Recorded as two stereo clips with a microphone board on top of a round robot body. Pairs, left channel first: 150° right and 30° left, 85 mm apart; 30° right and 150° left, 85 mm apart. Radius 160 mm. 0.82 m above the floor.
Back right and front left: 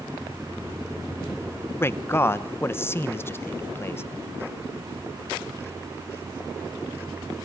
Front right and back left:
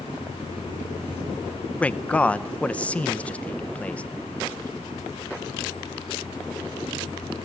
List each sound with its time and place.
1.8 s a man speaking: 100° right, 1.0 m